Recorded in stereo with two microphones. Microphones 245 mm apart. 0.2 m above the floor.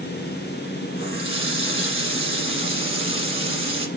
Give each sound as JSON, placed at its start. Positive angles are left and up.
{"t": 1.0, "sound": "a running tap", "side_deg": 55, "distance_m": 1.4}